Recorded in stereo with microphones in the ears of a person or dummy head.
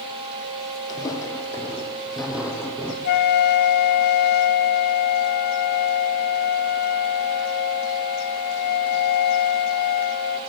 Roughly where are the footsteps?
Left.